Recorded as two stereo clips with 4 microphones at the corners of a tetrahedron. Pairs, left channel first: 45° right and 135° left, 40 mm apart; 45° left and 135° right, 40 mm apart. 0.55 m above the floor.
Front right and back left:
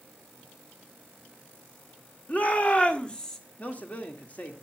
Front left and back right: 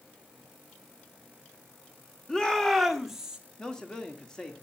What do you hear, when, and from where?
2.3 s a shout: 20° right, 1.7 m; by 3.4 s 100° right, 1.3 m
3.6 s a man speaking: 20° right, 1.5 m